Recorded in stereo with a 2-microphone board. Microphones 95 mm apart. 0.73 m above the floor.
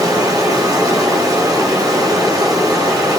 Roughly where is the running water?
Right.